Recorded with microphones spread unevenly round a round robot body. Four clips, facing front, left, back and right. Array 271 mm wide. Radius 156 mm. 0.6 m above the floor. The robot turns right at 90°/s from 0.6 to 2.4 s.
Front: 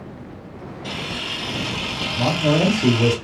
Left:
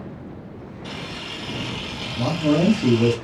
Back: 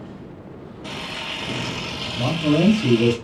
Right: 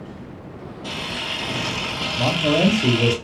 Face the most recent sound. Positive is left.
turn(degrees=15)